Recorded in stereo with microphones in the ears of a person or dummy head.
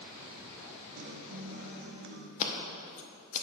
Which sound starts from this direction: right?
A guitar, at 1.0 s.